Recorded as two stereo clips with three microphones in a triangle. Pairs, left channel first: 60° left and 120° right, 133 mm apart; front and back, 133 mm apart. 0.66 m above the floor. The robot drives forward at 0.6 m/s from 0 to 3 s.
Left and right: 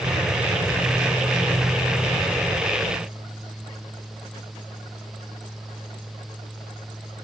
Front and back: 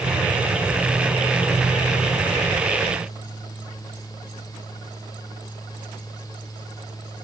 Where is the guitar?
No guitar in this recording.